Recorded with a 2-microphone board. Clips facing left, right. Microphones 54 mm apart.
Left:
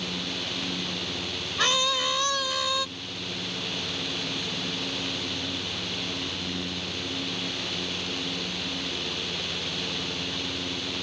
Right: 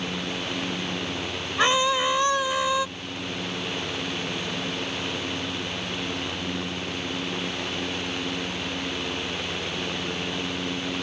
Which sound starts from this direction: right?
A scream, at 1.6 s.